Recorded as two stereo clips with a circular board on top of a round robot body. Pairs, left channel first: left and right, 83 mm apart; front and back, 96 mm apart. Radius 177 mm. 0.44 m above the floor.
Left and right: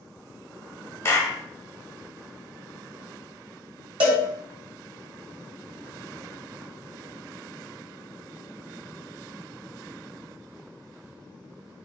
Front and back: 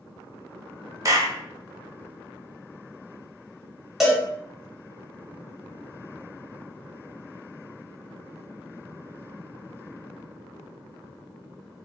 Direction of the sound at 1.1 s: 140° left.